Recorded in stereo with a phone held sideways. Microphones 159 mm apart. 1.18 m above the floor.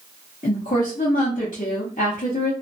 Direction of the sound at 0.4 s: 60° left (ahead or behind).